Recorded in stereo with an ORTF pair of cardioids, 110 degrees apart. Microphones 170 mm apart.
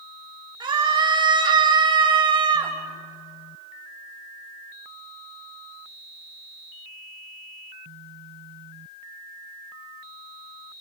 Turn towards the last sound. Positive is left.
turn(degrees=-25)